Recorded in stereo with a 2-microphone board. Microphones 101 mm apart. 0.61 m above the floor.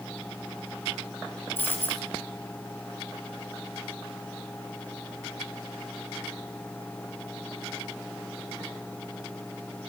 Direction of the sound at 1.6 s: 20° left (ahead or behind).